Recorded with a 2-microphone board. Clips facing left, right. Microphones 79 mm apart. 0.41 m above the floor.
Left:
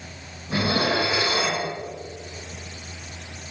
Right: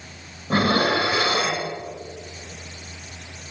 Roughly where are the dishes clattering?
Right.